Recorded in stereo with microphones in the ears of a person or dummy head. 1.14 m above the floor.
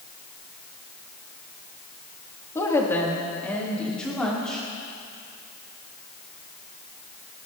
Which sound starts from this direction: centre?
A woman speaking, at 2.5 s.